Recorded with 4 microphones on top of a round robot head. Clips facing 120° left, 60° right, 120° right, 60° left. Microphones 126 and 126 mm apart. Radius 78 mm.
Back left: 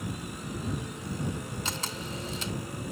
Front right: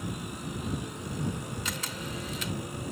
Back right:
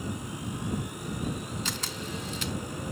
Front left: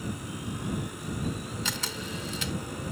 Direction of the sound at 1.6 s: 60° left.